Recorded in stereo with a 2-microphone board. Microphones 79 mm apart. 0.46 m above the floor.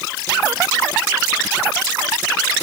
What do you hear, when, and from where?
Only background noise.